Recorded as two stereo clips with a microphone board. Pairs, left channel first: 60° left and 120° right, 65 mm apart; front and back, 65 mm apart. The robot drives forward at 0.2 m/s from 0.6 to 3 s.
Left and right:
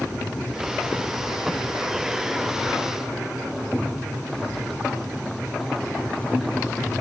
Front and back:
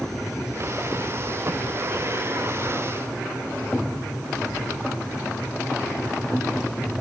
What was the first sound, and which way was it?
Only background noise.